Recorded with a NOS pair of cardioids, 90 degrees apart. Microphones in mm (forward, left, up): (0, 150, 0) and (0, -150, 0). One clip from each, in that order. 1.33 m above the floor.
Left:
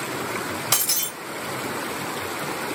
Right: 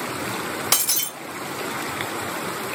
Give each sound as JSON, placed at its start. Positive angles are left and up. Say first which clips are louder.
{"t": 0.7, "sound": "breaking glass", "louder": "right 1 dB", "azimuth_deg": -20, "distance_m": 1.5}